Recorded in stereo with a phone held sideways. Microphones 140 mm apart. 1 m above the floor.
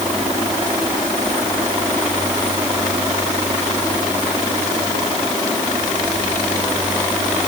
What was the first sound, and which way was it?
Only background noise.